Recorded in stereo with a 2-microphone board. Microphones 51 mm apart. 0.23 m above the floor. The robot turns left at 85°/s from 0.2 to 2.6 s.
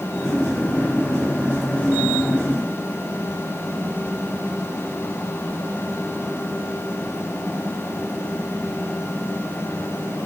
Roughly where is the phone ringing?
No phone ringing in this recording.